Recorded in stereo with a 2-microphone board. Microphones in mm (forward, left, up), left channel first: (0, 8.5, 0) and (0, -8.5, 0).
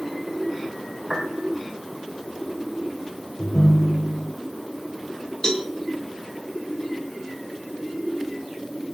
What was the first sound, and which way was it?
A piano, 55° right (ahead or behind).